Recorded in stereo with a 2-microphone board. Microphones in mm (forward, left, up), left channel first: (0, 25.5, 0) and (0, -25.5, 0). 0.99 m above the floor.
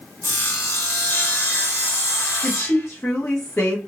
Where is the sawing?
60° left (ahead or behind), 1.8 m.